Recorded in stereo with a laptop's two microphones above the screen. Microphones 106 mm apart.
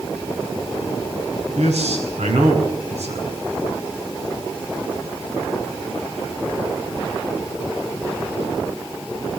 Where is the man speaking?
85° right, 8 m.